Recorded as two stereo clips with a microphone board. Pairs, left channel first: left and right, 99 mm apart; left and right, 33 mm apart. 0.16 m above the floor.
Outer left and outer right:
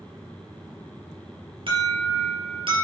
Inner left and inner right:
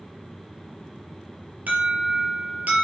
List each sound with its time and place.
1.7 s an alarm: 65° right (ahead or behind), 4 m